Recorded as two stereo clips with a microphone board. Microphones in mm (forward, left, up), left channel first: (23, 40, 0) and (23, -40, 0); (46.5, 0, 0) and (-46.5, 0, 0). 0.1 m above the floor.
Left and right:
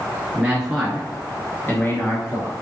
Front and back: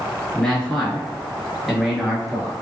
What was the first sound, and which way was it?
A man speaking, 65° right.